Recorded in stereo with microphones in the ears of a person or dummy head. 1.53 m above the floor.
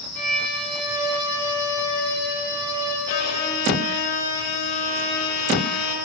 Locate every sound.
0.1 s a violin: 10° left (ahead or behind), 2.5 m
3.1 s a violin: 50° left (ahead or behind), 1.7 m